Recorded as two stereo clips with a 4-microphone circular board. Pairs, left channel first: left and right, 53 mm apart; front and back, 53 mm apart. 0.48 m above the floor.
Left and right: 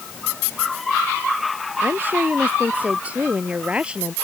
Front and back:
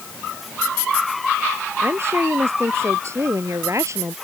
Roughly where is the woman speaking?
Behind right.